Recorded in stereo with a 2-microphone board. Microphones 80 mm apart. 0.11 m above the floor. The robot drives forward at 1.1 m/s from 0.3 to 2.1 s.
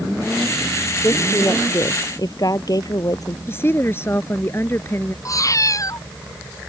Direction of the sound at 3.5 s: 30° left (ahead or behind).